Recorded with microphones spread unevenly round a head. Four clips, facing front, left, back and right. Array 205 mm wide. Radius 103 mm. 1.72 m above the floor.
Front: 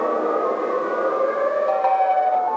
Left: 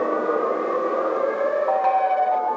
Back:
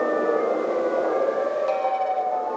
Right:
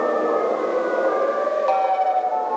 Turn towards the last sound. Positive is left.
No sound to turn to.